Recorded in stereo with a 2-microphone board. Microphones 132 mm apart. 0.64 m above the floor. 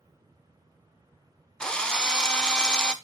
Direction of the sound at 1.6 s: 5° left (ahead or behind).